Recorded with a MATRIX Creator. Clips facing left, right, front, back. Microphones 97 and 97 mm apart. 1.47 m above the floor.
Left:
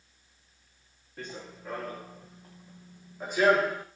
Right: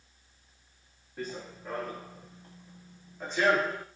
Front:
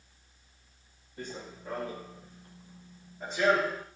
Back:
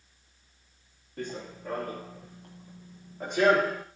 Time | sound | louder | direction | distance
1.2 | running footsteps | right 3 dB, back 4 dB | 175° right | 5 m